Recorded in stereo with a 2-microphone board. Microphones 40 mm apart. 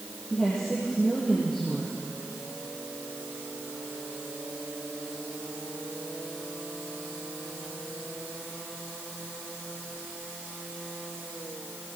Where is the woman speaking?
5° left (ahead or behind), 5 m.